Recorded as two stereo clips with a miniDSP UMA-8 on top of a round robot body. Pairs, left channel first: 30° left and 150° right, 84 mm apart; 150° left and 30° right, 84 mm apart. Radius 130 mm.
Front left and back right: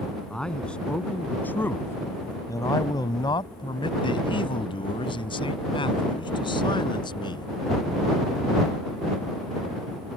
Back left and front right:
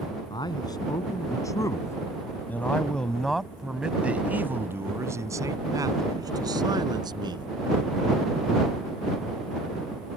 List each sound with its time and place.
0.3 s a man speaking: 115° left; by 7.5 s straight ahead